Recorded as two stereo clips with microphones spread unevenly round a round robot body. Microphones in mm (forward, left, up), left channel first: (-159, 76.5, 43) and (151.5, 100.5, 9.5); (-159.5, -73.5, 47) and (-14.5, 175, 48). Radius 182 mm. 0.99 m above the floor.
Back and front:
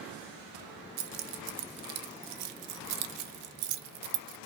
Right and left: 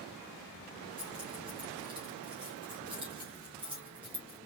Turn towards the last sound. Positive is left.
turn(degrees=-15)